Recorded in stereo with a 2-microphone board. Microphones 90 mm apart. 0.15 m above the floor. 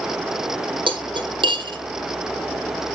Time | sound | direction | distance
0.9 | cutlery clinking | 65° right (ahead or behind) | 3 m